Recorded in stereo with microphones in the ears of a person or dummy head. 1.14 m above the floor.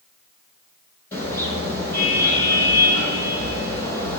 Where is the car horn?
15° left (ahead or behind), 9 m.